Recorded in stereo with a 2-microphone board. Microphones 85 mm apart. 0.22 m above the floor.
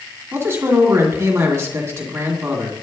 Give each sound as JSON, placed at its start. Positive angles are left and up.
{"t": 0.3, "sound": "a man speaking", "side_deg": -30, "distance_m": 2.0}